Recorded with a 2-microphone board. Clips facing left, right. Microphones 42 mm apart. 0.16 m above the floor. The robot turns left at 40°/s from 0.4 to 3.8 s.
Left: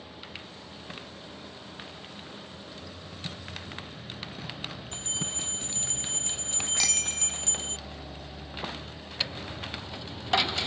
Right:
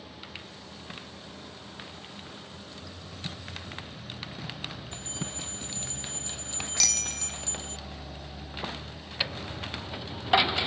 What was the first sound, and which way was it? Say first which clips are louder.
A bell: left 2 dB; 55° left (ahead or behind).